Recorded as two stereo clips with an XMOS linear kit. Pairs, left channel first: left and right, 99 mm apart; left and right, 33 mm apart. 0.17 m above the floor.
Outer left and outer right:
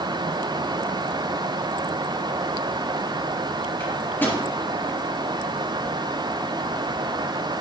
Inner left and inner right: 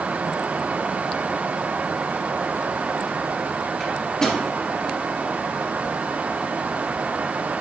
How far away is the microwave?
About 3 m.